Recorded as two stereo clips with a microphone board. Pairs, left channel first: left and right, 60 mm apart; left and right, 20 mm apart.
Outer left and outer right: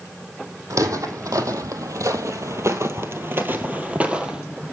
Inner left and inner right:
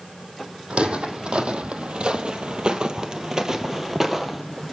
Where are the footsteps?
65° right (ahead or behind), 2 m; by 4.4 s 15° right (ahead or behind), 1.6 m.